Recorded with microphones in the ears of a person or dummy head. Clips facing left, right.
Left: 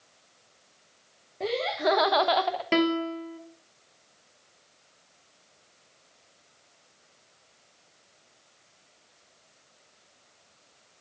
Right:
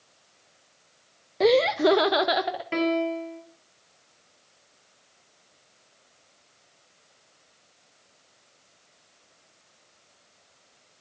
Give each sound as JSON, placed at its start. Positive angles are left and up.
{"t": 1.4, "sound": "laughter", "side_deg": -70, "distance_m": 0.5}
{"t": 2.7, "sound": "a piano", "side_deg": 55, "distance_m": 2.0}